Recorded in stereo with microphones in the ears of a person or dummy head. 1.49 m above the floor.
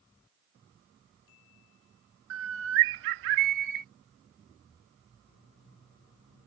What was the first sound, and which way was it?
A bird, 65° right (ahead or behind).